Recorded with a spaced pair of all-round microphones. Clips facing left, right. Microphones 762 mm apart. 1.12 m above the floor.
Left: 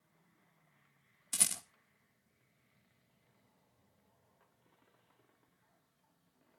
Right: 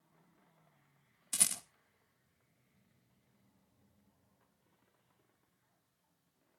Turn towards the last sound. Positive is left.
turn(degrees=0)  # may be behind; listen again after turning